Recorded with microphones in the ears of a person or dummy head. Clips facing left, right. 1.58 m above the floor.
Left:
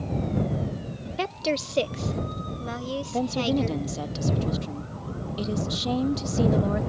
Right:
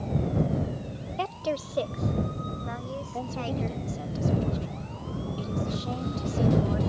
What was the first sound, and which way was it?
A woman speaking, 25° left (ahead or behind).